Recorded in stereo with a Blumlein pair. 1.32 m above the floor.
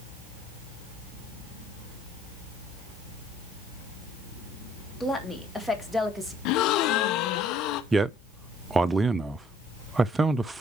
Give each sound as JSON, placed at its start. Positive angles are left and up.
{"t": 5.0, "sound": "a woman speaking", "azimuth_deg": 5, "distance_m": 3.0}
{"t": 6.5, "sound": "a gasp", "azimuth_deg": 40, "distance_m": 0.9}
{"t": 7.9, "sound": "a man speaking", "azimuth_deg": -10, "distance_m": 0.6}